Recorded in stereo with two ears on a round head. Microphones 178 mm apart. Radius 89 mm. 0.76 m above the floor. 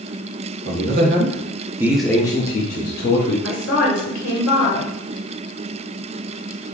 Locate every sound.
0.7 s a man speaking: 55° right (ahead or behind), 0.8 m; by 3.3 s 55° left (ahead or behind), 0.8 m
3.4 s a woman speaking: 65° left (ahead or behind), 1.8 m